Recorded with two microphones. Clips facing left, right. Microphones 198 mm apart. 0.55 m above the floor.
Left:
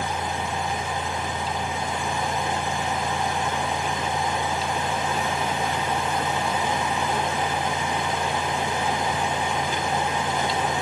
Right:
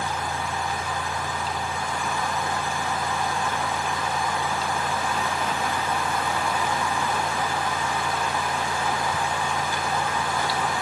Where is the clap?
No clap in this recording.